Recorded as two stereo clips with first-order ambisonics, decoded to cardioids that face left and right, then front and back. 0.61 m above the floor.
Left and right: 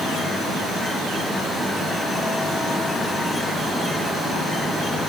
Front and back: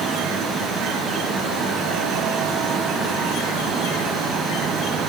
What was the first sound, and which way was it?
Only background noise.